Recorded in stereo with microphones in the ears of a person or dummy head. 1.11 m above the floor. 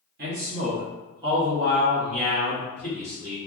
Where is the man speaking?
40° right (ahead or behind), 0.7 m; by 3.4 s 15° left (ahead or behind), 1.6 m.